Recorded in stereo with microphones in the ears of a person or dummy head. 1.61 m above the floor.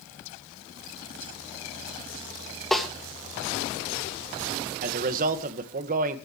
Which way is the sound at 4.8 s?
45° right (ahead or behind).